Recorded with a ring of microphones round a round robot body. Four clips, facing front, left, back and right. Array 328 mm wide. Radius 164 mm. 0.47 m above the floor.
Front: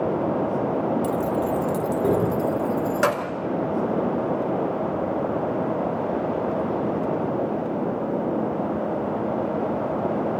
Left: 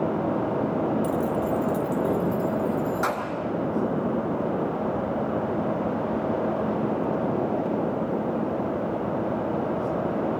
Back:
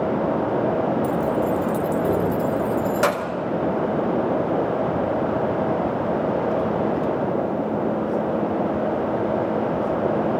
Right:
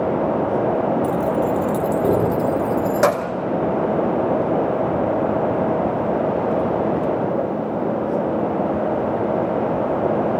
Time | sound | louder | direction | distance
1.0 | keys jangling | right 6 dB, back 2 dB | straight ahead | 0.7 m